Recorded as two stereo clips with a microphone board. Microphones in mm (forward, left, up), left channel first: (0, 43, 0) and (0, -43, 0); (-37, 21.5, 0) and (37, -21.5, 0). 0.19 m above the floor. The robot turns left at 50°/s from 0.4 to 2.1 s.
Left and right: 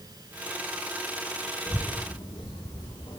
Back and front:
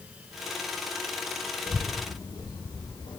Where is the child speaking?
145° left, 3 m; by 3.2 s 120° left, 3 m.